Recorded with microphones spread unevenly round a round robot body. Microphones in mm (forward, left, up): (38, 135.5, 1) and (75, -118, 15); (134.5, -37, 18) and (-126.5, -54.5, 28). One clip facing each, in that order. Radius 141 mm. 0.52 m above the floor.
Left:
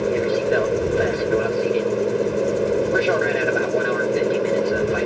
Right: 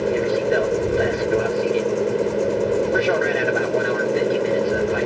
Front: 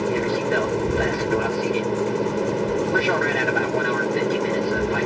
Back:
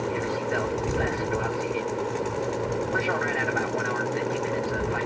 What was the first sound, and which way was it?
An aircraft, 10° left.